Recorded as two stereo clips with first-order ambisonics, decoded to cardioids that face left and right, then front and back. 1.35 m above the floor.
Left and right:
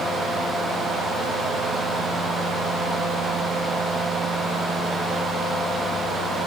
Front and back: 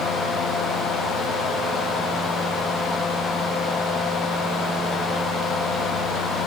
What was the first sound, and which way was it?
Only background noise.